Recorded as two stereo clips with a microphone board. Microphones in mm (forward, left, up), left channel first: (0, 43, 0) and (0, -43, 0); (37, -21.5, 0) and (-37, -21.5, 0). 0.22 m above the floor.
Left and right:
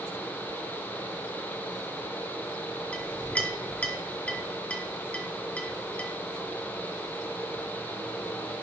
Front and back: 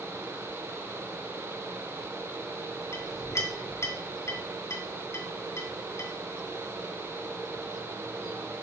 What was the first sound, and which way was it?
A clink, 20° left.